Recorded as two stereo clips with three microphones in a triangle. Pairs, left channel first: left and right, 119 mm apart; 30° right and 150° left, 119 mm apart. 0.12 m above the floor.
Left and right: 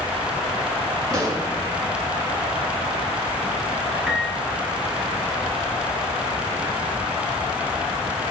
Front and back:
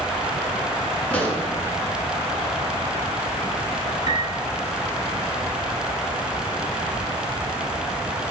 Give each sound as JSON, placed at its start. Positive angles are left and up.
{"t": 1.1, "sound": "a pop", "azimuth_deg": -95, "distance_m": 1.2}
{"t": 4.1, "sound": "a piano", "azimuth_deg": -170, "distance_m": 1.3}